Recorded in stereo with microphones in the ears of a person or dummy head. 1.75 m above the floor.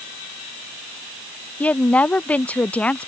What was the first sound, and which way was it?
A woman speaking, 10° left (ahead or behind).